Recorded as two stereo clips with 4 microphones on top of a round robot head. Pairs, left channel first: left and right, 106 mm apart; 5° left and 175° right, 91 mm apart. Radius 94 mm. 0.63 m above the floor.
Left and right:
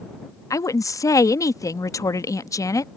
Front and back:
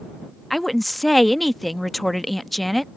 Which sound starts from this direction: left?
A woman speaking, at 0.5 s.